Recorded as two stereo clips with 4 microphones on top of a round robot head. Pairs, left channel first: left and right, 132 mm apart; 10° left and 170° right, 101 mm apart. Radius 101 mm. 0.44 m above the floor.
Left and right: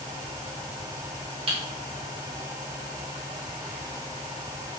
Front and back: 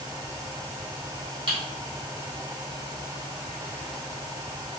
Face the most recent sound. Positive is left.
turn(degrees=-130)